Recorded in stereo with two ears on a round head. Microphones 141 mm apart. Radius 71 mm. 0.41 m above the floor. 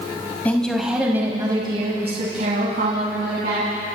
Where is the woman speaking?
10° left (ahead or behind), 2 m; by 3.7 s 65° right (ahead or behind), 3.5 m.